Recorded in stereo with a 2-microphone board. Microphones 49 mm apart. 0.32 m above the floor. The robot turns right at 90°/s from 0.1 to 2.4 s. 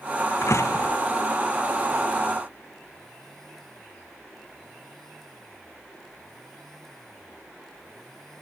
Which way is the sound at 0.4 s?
60° left.